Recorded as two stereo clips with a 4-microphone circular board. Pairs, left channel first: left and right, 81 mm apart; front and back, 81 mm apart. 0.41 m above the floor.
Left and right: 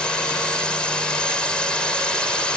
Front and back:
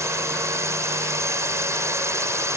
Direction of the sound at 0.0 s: 160° left.